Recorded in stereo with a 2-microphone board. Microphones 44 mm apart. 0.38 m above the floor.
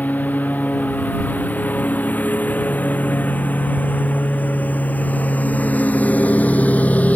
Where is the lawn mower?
40° left (ahead or behind); by 7.2 s 35° left (ahead or behind).